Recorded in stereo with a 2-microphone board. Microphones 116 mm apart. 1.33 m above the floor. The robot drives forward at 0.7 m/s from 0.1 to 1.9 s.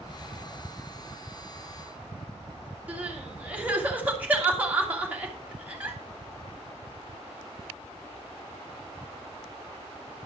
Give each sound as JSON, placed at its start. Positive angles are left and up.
{"t": 2.9, "sound": "crying", "side_deg": -15, "distance_m": 2.5}